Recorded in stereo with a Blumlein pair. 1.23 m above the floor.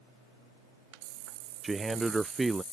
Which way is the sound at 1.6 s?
5° right.